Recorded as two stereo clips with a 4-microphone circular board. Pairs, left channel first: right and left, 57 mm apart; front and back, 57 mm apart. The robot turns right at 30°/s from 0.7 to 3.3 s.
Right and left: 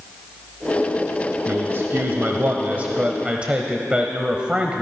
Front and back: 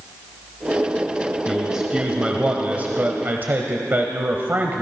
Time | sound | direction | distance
1.5 | a man speaking | 95° left | 1.2 m